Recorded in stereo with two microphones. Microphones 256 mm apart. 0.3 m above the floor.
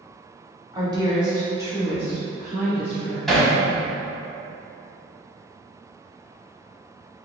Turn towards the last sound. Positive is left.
turn(degrees=0)  # may be behind; listen again after turning